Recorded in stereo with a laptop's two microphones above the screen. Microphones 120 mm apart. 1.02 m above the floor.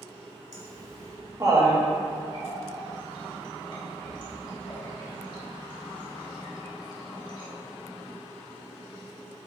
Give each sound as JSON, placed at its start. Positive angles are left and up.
{"t": 0.5, "sound": "laughter", "side_deg": -30, "distance_m": 1.5}
{"t": 2.3, "sound": "a running tap", "side_deg": 40, "distance_m": 1.1}